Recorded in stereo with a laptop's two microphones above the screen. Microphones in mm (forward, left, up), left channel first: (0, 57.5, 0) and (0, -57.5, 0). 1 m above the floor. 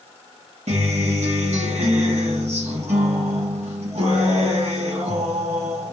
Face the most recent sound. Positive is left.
turn(degrees=-65)  # may be behind; listen again after turning